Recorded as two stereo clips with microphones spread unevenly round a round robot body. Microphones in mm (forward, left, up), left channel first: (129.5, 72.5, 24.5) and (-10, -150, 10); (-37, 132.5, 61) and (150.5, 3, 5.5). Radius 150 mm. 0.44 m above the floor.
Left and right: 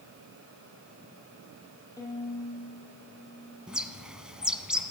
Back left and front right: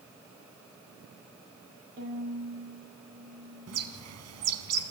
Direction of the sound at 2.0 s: 20° right.